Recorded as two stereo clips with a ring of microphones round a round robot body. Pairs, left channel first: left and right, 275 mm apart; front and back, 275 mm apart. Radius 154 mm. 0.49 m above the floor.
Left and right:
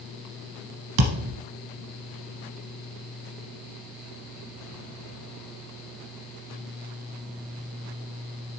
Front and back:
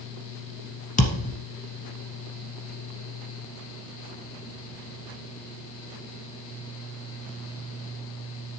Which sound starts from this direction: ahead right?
A thud, at 1.0 s.